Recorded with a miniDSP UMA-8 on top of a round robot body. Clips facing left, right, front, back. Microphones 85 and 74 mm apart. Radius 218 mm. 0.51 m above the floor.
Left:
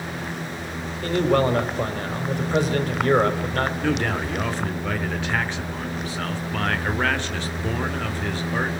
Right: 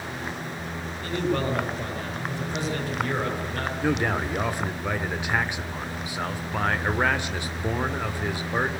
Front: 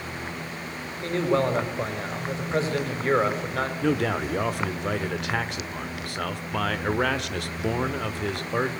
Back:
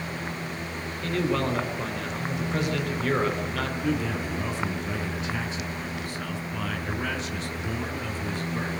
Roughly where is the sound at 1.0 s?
Ahead left.